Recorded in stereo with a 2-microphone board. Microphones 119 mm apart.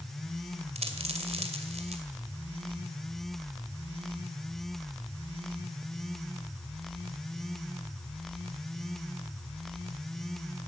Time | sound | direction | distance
0.8 | a dropped coin | 60° right (ahead or behind) | 2.5 m